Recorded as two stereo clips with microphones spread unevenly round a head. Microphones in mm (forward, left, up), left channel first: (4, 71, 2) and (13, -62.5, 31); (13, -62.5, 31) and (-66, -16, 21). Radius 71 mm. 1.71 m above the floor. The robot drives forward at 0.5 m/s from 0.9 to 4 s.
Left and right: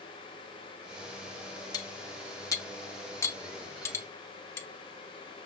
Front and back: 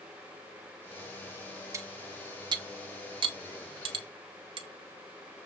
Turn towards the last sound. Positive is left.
turn(degrees=175)